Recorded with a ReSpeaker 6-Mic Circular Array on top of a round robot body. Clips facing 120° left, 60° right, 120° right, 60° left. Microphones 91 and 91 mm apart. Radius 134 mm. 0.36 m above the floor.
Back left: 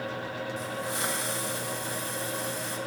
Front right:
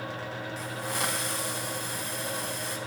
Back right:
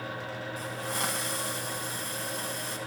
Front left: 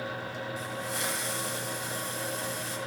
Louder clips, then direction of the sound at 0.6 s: Front right 2 dB, back right 3 dB; 90° right.